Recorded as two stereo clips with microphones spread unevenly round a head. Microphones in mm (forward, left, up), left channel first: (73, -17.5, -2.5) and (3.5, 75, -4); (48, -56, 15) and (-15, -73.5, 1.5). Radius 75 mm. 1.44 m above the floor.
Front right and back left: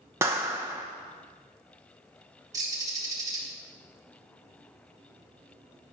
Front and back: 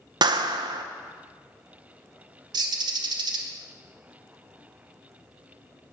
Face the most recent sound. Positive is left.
turn(degrees=-165)